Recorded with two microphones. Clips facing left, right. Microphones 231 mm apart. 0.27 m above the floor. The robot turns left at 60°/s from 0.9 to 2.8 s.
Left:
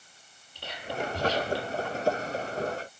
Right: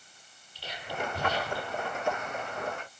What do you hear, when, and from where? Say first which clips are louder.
0.6 s whispering: left 2 dB; 55° left (ahead or behind), 9.5 m; by 1.8 s 65° left (ahead or behind), 9.5 m